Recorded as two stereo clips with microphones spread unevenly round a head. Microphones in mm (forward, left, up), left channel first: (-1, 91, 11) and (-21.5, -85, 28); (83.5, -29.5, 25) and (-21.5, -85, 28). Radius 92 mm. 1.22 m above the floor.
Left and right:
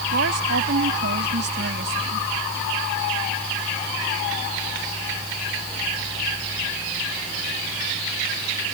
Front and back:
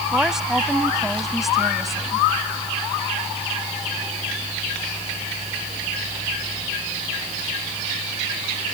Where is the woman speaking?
65° right; by 2.3 s 60° right.